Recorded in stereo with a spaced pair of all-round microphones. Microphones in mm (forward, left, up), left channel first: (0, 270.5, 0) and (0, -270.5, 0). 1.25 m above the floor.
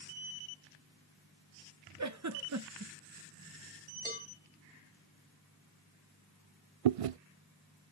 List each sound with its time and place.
2.0 s a giggle: 30° right (ahead or behind), 0.7 m
4.0 s a cowbell: 15° right (ahead or behind), 1.9 m
6.8 s chewing: 75° right (ahead or behind), 0.5 m